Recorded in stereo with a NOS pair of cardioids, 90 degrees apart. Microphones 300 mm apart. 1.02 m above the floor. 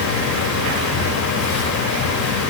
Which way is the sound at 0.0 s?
70° left.